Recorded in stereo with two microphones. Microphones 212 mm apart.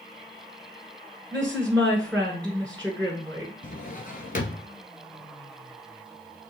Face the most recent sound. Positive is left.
turn(degrees=45)  # may be behind; listen again after turning